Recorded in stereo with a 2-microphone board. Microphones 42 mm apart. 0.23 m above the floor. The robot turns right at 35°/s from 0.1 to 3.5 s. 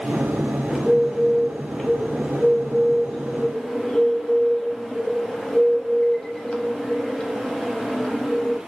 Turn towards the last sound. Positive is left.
turn(degrees=15)  # may be behind; listen again after turning